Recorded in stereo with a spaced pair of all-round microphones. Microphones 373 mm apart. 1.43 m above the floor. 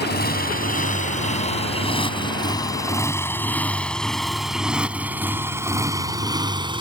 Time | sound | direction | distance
0.0 | a motorcycle | 30° left (ahead or behind) | ?